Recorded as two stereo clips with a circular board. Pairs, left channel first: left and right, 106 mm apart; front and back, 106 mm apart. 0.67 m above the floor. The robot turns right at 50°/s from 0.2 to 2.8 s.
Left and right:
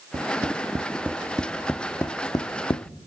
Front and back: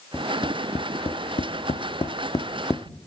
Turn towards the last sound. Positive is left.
turn(degrees=65)